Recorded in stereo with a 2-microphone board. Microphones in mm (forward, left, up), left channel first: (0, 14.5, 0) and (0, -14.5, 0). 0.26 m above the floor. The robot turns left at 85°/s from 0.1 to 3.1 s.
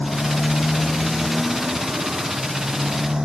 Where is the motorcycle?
105° left; by 3.2 s 150° right.